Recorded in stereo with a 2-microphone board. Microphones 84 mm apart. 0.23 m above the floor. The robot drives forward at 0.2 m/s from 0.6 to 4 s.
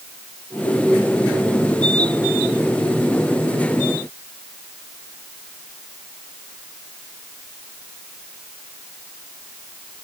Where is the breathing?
I don't hear breathing.